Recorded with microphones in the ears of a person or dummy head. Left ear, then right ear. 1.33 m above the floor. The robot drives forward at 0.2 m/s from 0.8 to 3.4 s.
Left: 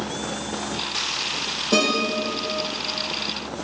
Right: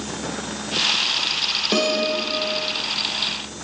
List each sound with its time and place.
1.7 s a guitar: 35° right (ahead or behind), 1.5 m